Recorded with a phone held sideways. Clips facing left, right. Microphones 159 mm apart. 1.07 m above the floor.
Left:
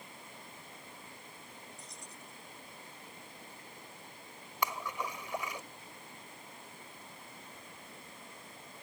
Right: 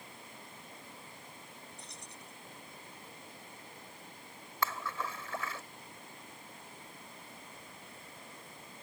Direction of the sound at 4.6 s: 15° left (ahead or behind).